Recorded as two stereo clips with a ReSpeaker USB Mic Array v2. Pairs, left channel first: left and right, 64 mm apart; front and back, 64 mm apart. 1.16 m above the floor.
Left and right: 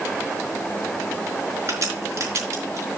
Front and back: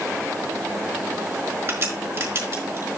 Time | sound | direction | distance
1.7 | a crack | 135° right | 4.5 m